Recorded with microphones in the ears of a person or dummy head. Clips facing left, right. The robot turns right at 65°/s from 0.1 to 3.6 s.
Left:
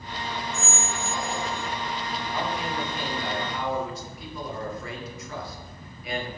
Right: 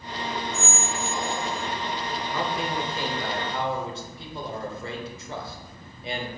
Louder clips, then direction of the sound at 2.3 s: Right 1 dB; 110° right.